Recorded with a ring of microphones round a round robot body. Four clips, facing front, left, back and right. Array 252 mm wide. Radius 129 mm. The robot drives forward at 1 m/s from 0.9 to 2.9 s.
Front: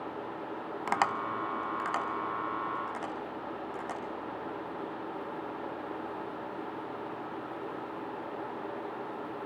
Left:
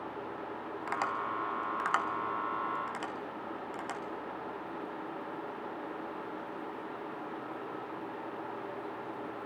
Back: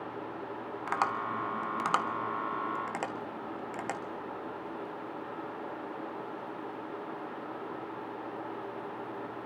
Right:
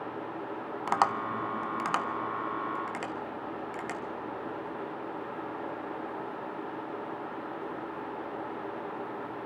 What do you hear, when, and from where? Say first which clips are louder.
0.9 s tapping: right 7 dB, front 1 dB; 50° right, 0.6 m; by 4.0 s 165° right, 1.7 m